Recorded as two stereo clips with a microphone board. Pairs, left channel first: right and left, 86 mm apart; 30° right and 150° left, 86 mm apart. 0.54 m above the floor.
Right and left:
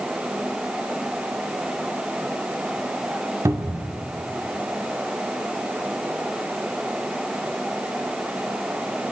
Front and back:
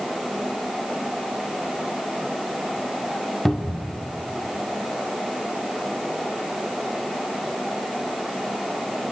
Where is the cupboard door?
55° left, 0.9 m.